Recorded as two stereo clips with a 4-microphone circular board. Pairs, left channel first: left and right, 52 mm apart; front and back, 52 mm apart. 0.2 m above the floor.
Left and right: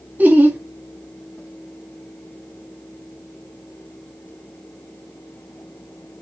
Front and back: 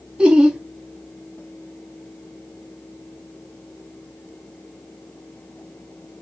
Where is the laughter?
120° right, 1.3 m.